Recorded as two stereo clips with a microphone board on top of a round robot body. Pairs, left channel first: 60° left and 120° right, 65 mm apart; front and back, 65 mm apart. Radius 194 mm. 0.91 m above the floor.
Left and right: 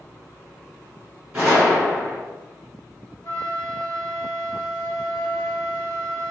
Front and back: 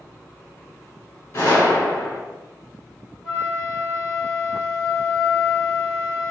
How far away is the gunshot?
About 1.1 m.